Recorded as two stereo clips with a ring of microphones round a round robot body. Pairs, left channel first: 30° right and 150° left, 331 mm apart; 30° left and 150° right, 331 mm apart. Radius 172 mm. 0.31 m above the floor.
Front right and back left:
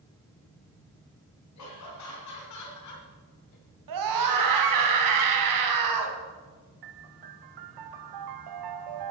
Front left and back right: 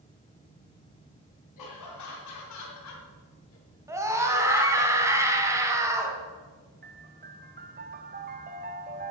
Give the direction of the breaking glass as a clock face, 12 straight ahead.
I don't hear breaking glass.